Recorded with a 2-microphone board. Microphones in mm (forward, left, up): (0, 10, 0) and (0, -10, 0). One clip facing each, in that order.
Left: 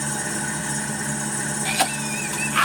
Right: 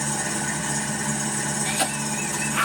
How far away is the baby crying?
No baby crying in this recording.